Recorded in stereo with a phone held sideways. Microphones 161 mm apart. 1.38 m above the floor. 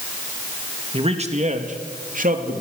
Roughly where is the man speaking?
Right.